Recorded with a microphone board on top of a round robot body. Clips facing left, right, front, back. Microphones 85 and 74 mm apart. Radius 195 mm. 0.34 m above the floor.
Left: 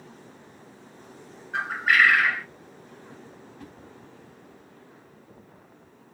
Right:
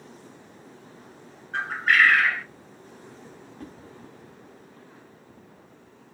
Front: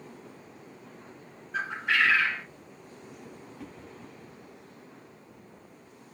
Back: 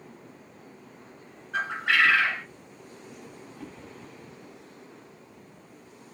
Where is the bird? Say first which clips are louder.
Even, back 3 dB; 175° left, 0.9 m.